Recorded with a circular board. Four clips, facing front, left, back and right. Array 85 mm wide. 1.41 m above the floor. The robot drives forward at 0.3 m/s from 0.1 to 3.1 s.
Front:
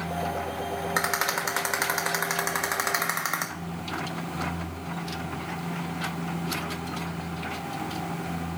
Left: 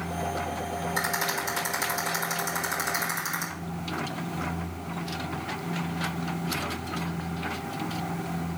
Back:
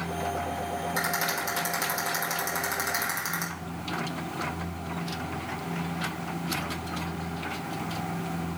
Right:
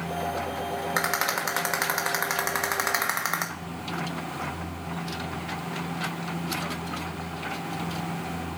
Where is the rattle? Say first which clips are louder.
Right 3 dB, front 4 dB; 45° right, 2 m; by 3.5 s 60° right, 1.7 m.